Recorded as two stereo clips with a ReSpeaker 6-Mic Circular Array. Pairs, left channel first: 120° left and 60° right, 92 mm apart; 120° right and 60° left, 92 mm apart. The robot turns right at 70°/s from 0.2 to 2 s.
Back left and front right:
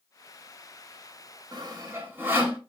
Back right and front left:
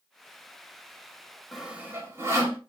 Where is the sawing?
30° right, 1.0 m; by 2.6 s 5° left, 1.0 m.